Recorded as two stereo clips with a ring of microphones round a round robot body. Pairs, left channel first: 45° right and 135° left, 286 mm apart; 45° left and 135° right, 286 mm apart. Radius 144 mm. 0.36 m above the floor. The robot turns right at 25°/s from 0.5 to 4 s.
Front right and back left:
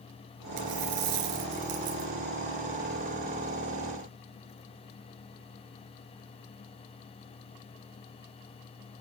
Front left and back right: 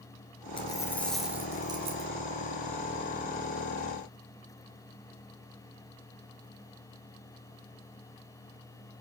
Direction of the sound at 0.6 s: 120° left.